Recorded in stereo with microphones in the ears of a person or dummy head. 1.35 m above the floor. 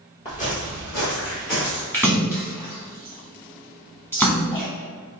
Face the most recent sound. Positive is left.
turn(degrees=5)  # may be behind; listen again after turning